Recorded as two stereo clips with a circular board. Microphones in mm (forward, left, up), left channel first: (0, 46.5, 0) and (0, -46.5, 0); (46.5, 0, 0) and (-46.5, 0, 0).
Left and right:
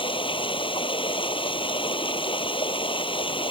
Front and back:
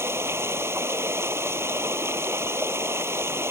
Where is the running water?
115° left.